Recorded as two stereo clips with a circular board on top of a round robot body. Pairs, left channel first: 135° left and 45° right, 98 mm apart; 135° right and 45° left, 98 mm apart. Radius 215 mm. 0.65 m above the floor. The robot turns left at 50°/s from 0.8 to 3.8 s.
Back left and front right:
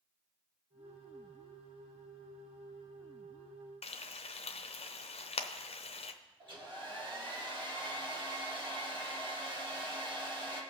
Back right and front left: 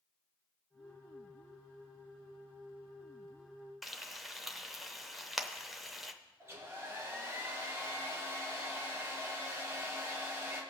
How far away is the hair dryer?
About 2 m.